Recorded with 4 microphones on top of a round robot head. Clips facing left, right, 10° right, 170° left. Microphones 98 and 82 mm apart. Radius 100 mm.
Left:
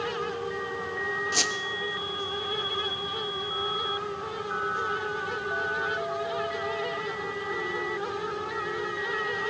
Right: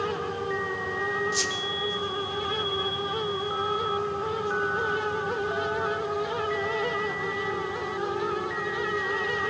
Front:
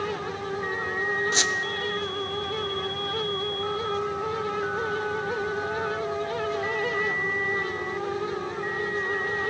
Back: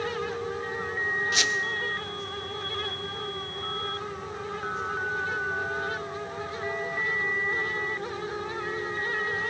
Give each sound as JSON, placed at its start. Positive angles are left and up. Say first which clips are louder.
{"t": 1.3, "sound": "a squeak", "louder": "right 1 dB, front 2 dB", "azimuth_deg": 50, "distance_m": 0.6}